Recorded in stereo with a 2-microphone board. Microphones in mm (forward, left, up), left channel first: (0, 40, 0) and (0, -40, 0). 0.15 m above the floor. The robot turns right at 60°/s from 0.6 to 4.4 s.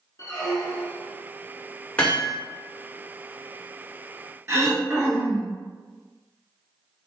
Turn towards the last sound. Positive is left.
turn(degrees=-30)  # may be behind; listen again after turning